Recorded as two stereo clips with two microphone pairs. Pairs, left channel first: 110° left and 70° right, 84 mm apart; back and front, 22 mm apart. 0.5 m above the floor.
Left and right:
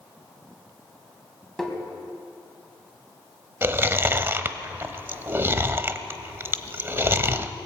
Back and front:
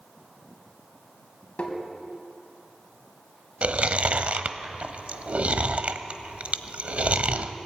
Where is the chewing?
5° right, 0.9 m.